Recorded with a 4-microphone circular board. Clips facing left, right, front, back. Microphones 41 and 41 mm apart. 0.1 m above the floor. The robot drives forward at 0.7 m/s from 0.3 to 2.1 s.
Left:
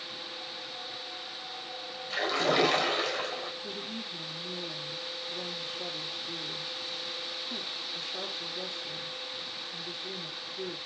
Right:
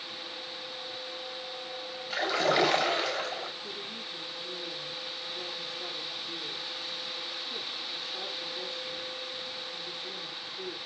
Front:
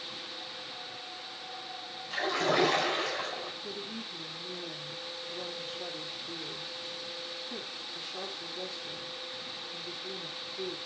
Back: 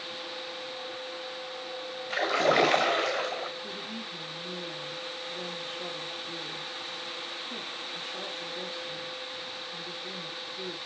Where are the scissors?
I don't hear scissors.